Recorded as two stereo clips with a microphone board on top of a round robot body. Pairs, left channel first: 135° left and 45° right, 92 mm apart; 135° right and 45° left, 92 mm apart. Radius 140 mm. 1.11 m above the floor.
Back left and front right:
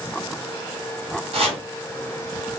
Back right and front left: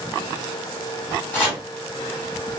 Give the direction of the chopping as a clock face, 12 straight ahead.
2 o'clock.